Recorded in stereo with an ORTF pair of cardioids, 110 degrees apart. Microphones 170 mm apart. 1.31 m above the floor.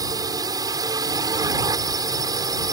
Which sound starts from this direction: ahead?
A drone, at 0.0 s.